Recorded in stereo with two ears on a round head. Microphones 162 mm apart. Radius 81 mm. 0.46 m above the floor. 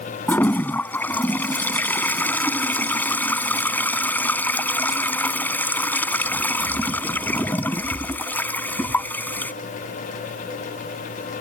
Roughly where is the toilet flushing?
Centre.